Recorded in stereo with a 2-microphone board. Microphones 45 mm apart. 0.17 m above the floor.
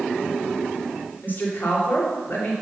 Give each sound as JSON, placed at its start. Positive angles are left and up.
{"t": 1.2, "sound": "a woman speaking", "side_deg": 50, "distance_m": 2.5}